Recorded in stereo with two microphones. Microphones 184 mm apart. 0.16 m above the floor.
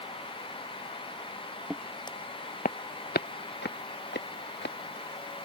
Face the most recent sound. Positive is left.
turn(degrees=75)  # may be behind; listen again after turning